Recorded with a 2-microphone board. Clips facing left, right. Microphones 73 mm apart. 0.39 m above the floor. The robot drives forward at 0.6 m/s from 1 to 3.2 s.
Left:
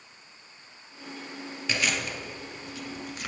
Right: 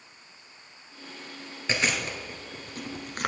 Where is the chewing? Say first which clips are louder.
Right 1 dB; 30° right (ahead or behind), 1.8 m; by 3.3 s 55° right (ahead or behind), 1.1 m.